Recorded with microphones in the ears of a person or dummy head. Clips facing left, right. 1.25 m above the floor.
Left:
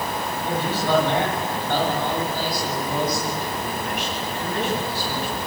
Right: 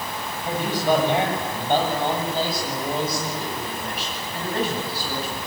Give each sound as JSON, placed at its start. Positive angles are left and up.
{"t": 0.5, "sound": "a man speaking", "side_deg": -15, "distance_m": 8.5}